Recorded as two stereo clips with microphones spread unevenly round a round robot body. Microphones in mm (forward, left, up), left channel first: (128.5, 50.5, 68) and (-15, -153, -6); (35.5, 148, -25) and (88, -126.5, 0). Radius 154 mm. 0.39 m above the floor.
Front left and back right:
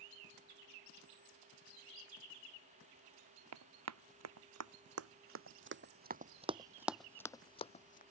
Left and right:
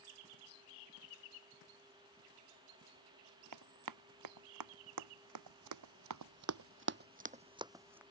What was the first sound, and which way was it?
Running footsteps, 105° right.